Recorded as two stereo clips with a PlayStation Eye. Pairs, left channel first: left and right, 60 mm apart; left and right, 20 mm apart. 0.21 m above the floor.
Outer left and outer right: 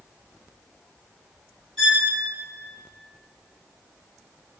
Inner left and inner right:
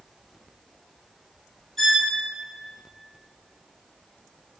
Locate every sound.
1.8 s a violin: 5° left (ahead or behind), 1.8 m